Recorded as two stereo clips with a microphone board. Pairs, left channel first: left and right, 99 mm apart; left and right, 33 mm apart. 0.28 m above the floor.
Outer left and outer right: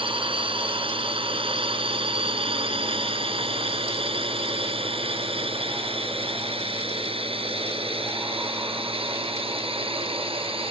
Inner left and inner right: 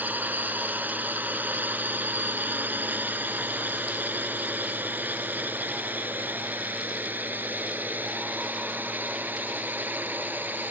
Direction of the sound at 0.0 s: 65° right (ahead or behind).